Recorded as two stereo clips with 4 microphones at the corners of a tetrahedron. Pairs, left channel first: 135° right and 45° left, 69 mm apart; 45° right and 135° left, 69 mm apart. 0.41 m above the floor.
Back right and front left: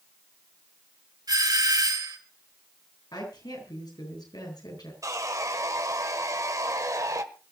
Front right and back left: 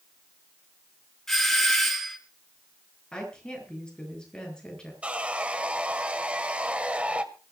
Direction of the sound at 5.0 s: 65° left.